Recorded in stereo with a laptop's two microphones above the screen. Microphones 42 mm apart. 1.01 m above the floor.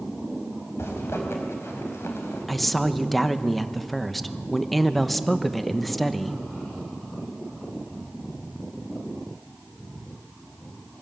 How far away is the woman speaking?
About 1.0 m.